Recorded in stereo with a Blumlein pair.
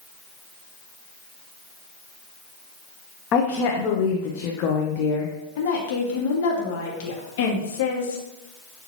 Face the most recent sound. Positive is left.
turn(degrees=55)